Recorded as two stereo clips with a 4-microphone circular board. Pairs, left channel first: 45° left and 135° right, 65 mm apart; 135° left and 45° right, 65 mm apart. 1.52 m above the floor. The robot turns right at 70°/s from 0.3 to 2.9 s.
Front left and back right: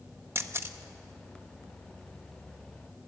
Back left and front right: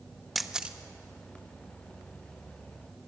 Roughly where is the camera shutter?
Behind right.